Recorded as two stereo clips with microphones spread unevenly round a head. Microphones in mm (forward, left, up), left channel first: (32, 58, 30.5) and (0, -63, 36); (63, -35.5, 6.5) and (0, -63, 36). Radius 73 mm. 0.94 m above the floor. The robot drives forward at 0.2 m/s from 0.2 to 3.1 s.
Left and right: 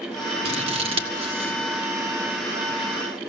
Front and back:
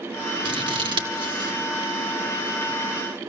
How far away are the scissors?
About 1.8 m.